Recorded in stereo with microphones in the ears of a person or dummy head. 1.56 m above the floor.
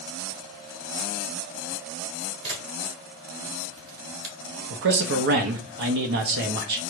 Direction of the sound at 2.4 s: 35° right (ahead or behind).